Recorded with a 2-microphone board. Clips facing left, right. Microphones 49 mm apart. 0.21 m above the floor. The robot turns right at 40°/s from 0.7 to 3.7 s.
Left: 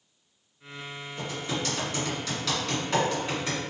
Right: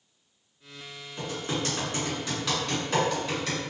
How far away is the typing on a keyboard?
About 1.8 m.